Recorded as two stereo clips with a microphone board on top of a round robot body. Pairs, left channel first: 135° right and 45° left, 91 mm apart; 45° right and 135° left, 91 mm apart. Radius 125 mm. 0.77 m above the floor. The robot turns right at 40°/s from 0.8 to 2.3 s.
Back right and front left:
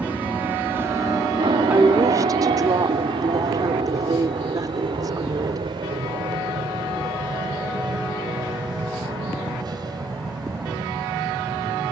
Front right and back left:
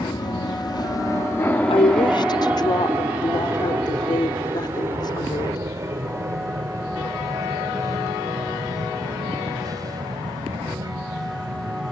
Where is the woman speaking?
30° right; by 5.6 s 5° right.